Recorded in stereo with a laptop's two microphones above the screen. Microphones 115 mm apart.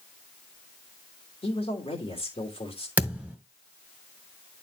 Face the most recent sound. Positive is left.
turn(degrees=-10)  # may be behind; listen again after turning